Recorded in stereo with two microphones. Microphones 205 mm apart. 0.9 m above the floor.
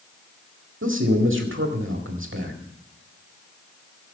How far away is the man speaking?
About 1.9 m.